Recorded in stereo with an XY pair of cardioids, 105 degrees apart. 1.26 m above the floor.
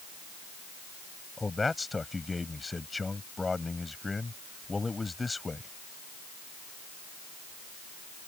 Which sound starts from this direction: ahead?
A man speaking, at 1.4 s.